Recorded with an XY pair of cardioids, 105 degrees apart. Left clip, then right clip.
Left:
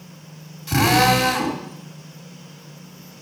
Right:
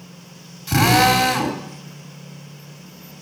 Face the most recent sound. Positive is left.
turn(degrees=-10)